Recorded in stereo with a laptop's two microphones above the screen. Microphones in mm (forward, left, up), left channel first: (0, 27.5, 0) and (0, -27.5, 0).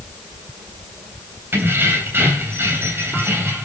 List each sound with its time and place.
1.5 s keys jangling: 45° right (ahead or behind), 3 m